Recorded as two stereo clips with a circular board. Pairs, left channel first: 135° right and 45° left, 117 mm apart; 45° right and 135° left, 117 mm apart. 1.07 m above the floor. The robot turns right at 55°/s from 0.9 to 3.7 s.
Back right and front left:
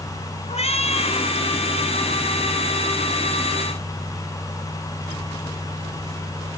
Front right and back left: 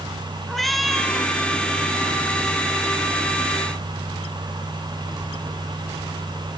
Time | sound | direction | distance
0.5 | a cat meowing | 135° right | 1.9 m